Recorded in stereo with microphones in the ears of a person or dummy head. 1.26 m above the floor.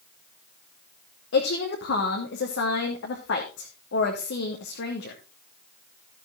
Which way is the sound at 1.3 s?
65° left (ahead or behind).